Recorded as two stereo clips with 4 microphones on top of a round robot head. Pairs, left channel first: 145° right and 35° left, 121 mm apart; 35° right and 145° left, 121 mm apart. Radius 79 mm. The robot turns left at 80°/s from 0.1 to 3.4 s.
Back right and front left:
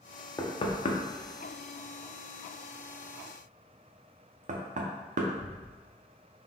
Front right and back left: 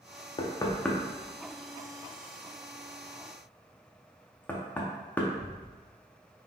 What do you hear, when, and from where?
0.4 s knocking: 80° right, 0.7 m; by 5.7 s 40° left, 0.7 m